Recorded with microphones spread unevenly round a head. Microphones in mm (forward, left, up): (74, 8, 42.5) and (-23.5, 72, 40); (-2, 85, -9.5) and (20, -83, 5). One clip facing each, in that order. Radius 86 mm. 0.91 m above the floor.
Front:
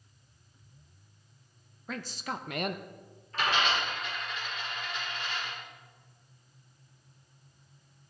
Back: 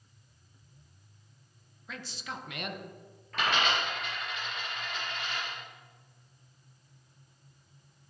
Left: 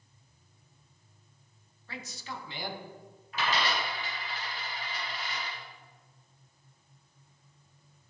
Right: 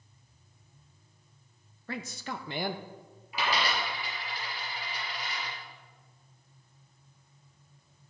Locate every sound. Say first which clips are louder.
1.9 s a man speaking: front 5 dB, right 5 dB; 60° right, 0.7 m
3.3 s a dropped coin: even, even; 160° right, 4.5 m